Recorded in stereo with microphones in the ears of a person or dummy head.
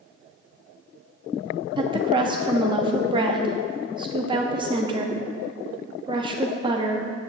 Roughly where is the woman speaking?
Right.